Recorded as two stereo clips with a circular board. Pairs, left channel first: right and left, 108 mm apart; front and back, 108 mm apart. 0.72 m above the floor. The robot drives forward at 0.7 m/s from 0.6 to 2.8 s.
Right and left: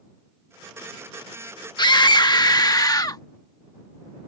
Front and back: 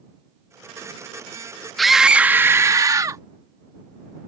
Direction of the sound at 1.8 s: 85° right.